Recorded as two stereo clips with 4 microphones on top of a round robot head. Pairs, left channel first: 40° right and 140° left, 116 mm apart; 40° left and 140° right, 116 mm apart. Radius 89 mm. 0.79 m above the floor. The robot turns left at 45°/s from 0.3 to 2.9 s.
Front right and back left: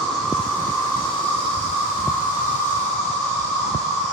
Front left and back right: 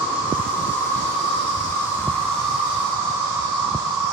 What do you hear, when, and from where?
0.0 s an insect: 45° left, 1.2 m; by 4.1 s 75° right, 1.2 m